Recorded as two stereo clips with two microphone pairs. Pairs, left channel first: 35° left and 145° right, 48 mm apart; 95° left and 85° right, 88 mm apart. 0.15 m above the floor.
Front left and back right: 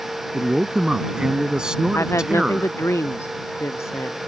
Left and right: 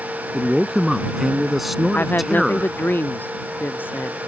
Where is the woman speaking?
30° left.